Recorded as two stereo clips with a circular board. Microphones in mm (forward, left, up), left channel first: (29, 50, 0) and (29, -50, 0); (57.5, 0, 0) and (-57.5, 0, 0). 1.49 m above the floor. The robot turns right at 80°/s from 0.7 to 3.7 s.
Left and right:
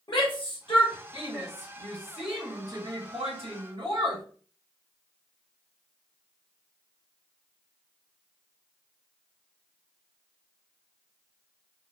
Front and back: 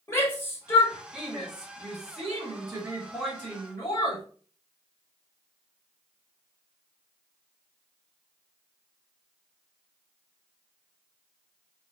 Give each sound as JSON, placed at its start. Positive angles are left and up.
{"t": 0.1, "sound": "a shout", "azimuth_deg": 55, "distance_m": 1.8}